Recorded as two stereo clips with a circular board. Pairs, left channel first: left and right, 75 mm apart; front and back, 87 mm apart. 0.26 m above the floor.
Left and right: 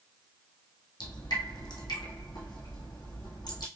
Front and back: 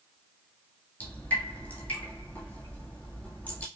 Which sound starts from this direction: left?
Dripping, at 1.0 s.